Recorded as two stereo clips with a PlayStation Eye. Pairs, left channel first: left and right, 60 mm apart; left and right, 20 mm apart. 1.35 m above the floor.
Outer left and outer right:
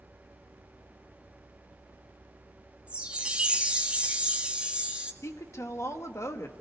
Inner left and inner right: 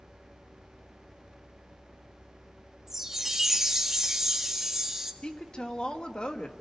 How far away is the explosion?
No explosion in this recording.